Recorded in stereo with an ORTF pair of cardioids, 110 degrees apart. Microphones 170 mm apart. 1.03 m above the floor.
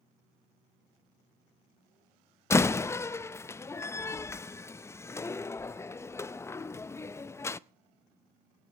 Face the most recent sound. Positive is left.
turn(degrees=15)